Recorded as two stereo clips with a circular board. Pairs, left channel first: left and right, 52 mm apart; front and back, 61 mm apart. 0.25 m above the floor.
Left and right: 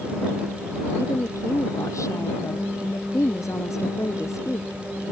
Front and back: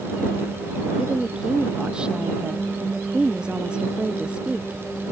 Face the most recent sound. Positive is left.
turn(degrees=105)